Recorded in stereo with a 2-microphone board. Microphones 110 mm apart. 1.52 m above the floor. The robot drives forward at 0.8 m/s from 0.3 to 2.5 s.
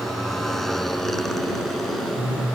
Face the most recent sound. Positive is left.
turn(degrees=0)  # may be behind; listen again after turning